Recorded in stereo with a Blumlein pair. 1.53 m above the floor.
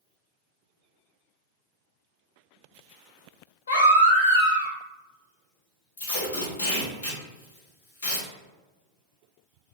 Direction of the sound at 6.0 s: 60° left.